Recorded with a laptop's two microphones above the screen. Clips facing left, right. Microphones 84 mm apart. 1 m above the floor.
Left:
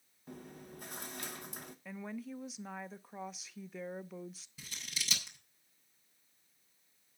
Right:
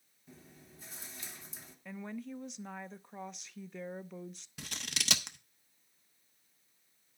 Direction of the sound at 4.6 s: 70° right (ahead or behind).